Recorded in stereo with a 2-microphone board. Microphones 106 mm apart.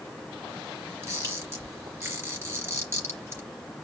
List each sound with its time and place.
1.0 s a camera shutter: 25° right (ahead or behind), 3.5 m